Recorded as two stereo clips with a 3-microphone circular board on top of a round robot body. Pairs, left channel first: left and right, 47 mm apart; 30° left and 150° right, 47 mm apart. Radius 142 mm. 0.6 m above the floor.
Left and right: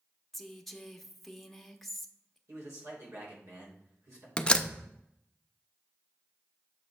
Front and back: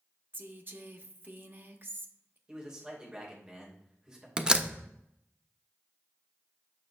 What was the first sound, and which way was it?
A woman speaking, straight behind.